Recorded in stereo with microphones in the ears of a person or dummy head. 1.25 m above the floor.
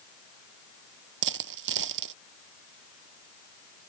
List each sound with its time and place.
1.2 s a dropped coin: 60° right (ahead or behind)